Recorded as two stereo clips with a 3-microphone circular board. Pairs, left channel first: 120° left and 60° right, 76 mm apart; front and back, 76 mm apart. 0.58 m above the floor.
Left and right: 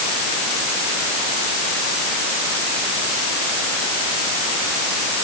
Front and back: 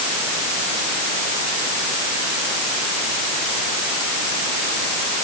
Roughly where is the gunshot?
I don't hear a gunshot.